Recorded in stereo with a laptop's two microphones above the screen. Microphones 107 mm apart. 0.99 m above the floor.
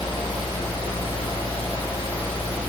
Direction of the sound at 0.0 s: 55° left (ahead or behind).